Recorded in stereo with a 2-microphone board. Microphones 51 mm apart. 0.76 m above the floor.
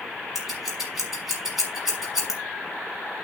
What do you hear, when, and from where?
0.3 s scissors: 5° right (ahead or behind), 6 m